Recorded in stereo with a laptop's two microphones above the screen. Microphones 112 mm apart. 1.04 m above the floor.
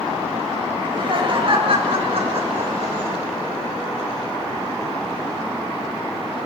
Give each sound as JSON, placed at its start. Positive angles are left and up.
{"t": 0.8, "sound": "laughter", "side_deg": -45, "distance_m": 6.5}